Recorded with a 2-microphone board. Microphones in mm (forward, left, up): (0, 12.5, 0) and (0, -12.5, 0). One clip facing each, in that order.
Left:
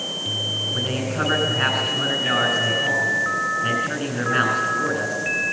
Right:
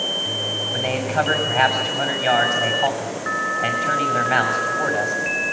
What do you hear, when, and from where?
0.7 s a man speaking: 75° right (ahead or behind), 6 m